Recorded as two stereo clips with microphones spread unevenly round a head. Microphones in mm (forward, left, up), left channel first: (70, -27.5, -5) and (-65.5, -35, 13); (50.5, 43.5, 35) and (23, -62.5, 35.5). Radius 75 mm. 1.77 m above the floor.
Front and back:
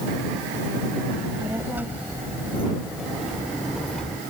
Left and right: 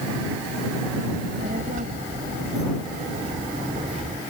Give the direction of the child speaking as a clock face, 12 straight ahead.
4 o'clock.